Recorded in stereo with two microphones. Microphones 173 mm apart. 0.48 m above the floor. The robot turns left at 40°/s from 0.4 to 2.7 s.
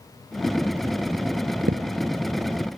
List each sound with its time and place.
1.7 s a thud: 75° right (ahead or behind), 1.4 m; by 1.8 s 80° right, 1.4 m